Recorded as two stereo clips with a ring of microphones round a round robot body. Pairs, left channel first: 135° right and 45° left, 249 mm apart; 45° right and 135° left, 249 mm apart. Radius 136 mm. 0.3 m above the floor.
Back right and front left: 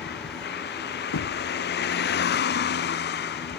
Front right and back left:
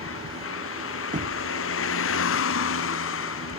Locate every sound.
0.0 s a vehicle: 85° right
1.1 s knocking: 165° right